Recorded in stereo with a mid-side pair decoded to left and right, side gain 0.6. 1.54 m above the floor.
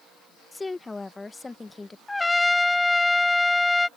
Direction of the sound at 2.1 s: 10° left.